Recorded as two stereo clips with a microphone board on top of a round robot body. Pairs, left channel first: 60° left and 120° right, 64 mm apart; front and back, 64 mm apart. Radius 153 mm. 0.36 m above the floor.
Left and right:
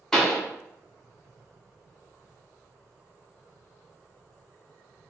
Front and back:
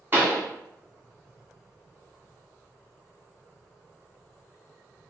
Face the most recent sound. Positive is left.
turn(degrees=140)